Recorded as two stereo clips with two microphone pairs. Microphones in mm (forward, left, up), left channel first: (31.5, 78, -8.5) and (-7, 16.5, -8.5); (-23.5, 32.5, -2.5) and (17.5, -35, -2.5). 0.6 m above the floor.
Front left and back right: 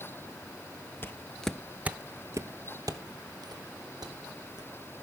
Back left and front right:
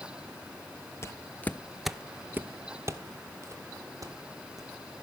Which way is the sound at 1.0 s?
95° left.